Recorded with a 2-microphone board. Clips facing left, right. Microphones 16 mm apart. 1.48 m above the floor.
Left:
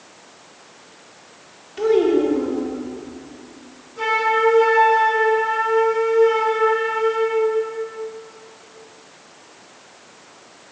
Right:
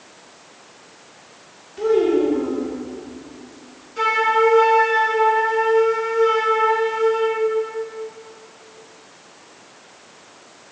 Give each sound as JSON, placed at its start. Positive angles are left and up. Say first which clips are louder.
{"t": 1.8, "sound": "a child speaking", "louder": "left 1 dB", "side_deg": 15, "distance_m": 1.3}
{"t": 4.0, "sound": "a flute", "louder": "right 1 dB", "side_deg": -65, "distance_m": 1.4}